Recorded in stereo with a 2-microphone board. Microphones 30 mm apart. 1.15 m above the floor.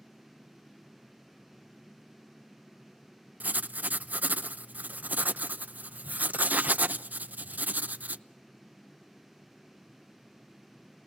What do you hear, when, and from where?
3.4 s writing: 70° right (ahead or behind), 0.6 m